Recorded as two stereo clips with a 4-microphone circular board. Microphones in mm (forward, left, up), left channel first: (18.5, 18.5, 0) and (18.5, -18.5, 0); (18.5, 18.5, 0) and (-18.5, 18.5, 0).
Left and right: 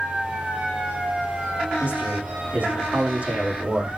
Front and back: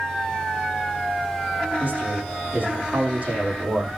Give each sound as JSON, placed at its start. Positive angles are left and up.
{"t": 1.8, "sound": "a man speaking", "azimuth_deg": -130, "distance_m": 7.0}